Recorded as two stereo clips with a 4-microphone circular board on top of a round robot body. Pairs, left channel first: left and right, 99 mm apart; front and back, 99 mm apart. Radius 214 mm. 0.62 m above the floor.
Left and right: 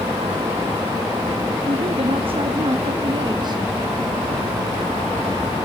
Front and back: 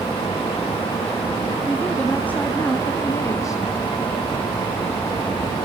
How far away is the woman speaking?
About 2 m.